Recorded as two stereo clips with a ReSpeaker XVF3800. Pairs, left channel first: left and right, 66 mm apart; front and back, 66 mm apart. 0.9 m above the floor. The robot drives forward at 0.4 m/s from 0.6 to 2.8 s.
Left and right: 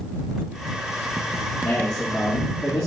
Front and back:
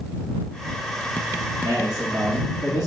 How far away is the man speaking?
About 1.7 m.